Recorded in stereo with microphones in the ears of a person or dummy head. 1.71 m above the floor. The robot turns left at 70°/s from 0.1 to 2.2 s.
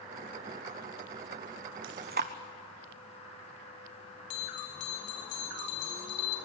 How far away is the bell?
About 2.5 m.